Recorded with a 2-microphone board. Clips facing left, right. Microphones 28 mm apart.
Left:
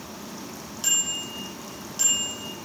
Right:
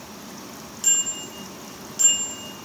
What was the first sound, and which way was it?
A bicycle bell, 15° left (ahead or behind).